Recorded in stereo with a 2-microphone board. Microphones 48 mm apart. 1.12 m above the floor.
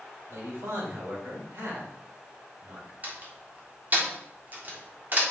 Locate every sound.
0.3 s a man speaking: 70° right (ahead or behind), 3.5 m
3.0 s a door slam: 40° right (ahead or behind), 1.7 m